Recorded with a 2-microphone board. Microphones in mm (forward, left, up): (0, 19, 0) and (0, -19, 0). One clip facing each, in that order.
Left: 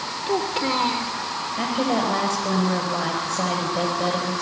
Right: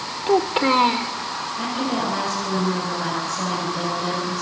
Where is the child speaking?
25° right (ahead or behind), 1.8 m.